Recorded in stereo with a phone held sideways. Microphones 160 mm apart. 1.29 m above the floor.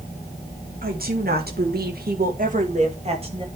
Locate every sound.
0.8 s a woman speaking: 65° right (ahead or behind), 2.5 m; by 3.5 s 30° right (ahead or behind), 2.5 m